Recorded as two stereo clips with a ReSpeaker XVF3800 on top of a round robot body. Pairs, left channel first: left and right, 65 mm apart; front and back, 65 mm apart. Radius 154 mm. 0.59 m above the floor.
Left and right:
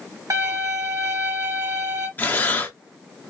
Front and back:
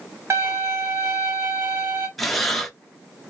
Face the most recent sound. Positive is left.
turn(degrees=85)